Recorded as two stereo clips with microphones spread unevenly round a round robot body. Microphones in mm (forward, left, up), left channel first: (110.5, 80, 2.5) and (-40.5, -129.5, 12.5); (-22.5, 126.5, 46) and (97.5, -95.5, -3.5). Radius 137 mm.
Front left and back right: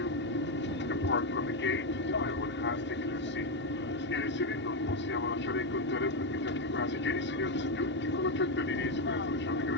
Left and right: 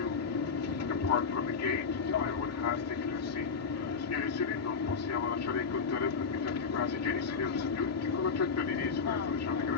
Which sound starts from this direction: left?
An aircraft, at 0.0 s.